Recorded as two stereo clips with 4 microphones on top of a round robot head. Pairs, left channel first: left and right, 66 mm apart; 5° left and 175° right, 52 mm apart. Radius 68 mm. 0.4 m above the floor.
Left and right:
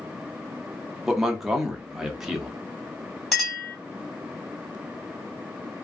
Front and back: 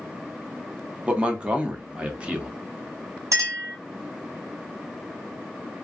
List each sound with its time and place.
1.1 s a man speaking: 165° right, 0.8 m
3.3 s a clink: 175° left, 1.7 m